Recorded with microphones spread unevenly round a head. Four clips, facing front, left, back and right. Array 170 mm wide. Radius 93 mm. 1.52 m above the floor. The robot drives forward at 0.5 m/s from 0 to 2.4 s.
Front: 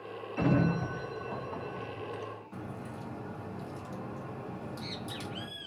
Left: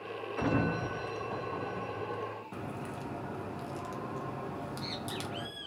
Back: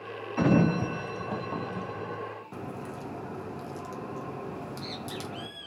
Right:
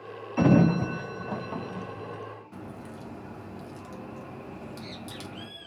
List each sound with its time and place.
0.4 s a sliding door: 105° right, 0.5 m; by 2.2 s 155° right, 1.2 m
2.5 s a crack: 155° left, 1.2 m
4.5 s a bird: 70° left, 2 m